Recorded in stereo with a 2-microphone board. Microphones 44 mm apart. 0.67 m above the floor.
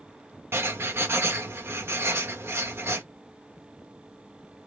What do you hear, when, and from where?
0.5 s writing: 65° right (ahead or behind), 0.8 m